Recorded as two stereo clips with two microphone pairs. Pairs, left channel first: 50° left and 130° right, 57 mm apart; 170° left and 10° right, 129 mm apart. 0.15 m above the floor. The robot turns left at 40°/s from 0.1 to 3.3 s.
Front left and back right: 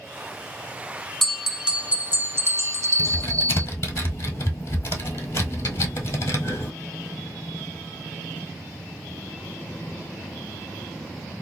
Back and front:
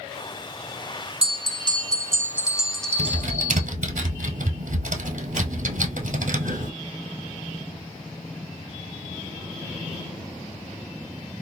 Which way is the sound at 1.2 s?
40° right.